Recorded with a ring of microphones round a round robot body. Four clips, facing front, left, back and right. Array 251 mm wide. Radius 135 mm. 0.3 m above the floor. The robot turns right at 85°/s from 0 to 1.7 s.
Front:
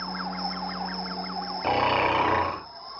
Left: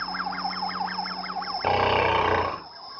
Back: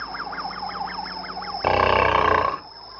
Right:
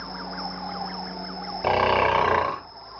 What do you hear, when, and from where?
0.0 s an insect: 40° right, 0.9 m; by 3.0 s 105° left, 0.9 m
1.6 s snoring: straight behind, 0.8 m; by 2.6 s 175° right, 0.8 m